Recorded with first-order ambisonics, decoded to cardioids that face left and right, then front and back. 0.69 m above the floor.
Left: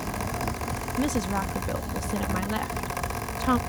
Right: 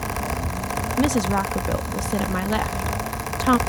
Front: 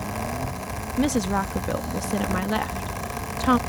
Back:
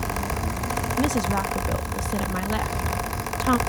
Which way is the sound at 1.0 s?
70° right.